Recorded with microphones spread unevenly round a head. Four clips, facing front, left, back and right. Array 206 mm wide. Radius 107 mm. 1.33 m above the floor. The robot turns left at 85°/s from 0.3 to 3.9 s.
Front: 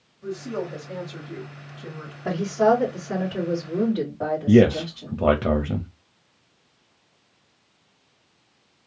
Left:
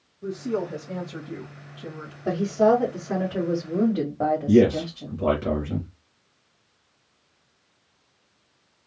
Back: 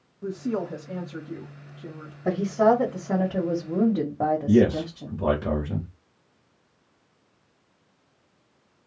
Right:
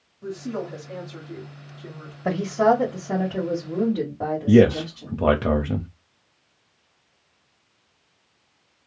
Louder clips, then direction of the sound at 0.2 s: Left 3 dB, back 1 dB; 175° right.